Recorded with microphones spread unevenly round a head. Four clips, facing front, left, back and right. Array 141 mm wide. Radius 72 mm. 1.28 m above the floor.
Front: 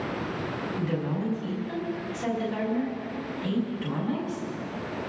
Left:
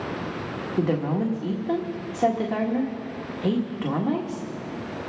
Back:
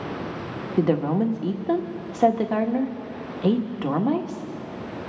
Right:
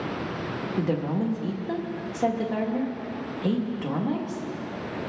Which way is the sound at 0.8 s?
170° left.